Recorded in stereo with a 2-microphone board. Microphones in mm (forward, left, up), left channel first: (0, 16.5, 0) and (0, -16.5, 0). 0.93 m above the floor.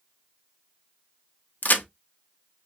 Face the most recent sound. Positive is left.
turn(degrees=60)  # may be behind; listen again after turning